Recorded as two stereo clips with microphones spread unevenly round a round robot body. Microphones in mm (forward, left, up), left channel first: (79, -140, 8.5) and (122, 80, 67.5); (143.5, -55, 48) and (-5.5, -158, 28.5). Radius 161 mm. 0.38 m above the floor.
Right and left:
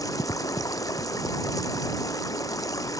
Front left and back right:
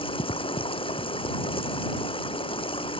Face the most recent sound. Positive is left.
turn(degrees=-25)